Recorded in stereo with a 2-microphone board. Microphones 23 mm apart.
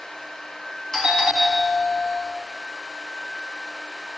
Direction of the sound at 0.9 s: 25° left (ahead or behind).